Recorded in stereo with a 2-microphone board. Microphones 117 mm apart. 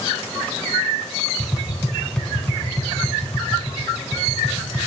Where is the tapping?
5° left (ahead or behind), 1.0 m.